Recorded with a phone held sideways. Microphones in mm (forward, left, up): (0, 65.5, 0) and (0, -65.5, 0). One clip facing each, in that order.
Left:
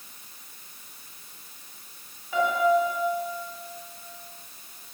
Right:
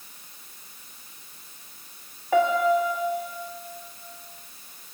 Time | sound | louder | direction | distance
2.3 | a piano | right 2 dB | 75° right (ahead or behind) | 2.5 m